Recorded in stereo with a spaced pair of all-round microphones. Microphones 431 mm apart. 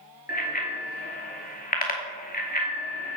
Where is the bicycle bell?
20° left (ahead or behind), 2.5 m.